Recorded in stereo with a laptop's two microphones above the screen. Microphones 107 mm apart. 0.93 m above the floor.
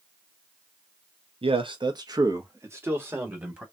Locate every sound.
1.4 s a man speaking: 60° right (ahead or behind), 0.7 m; by 3.6 s 15° right (ahead or behind), 1.9 m